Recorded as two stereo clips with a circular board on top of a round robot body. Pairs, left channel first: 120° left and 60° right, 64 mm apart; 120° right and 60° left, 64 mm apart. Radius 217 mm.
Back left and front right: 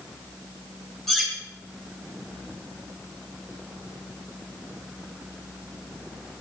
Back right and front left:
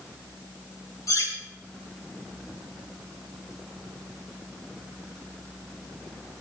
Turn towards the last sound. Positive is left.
turn(degrees=-155)